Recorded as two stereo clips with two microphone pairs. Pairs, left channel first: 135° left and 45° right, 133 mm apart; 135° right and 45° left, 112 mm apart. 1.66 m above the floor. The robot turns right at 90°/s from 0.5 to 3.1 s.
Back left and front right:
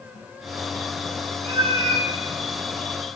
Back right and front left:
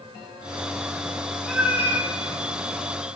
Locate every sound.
1.4 s a cat meowing: 50° right, 1.2 m; by 2.1 s 10° left, 1.2 m